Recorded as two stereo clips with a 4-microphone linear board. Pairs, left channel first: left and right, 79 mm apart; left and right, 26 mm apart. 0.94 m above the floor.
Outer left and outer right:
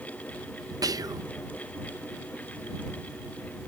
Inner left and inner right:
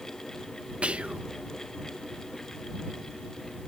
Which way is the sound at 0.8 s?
50° right (ahead or behind).